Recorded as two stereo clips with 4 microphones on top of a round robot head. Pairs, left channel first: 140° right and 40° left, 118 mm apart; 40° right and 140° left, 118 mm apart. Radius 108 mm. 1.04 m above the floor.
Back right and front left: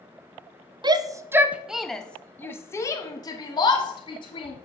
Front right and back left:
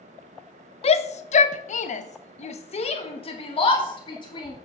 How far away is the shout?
About 0.8 m.